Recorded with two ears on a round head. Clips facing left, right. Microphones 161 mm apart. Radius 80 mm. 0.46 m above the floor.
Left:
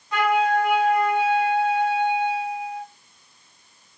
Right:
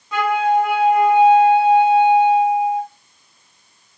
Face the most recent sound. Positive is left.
turn(degrees=-65)  # may be behind; listen again after turning